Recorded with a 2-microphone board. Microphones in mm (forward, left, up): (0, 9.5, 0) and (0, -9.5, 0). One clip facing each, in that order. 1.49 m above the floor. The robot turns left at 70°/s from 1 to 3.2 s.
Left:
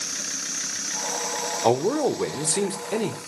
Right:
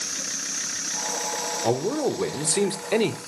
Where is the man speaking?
45° left, 1.0 m; by 3.2 s 65° right, 1.0 m.